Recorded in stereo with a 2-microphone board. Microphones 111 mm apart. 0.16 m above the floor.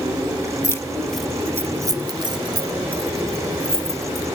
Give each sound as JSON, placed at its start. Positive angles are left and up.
{"t": 0.6, "sound": "keys jangling", "side_deg": 25, "distance_m": 0.8}